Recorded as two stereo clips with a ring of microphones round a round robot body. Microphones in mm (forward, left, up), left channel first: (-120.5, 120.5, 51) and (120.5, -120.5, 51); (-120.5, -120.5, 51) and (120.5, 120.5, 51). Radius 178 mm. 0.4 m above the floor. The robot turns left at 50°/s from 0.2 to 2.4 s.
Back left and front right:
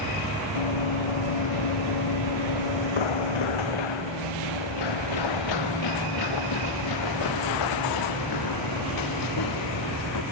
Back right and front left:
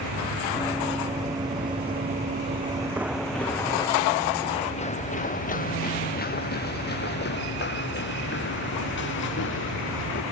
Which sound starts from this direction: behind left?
Running footsteps, at 0.6 s.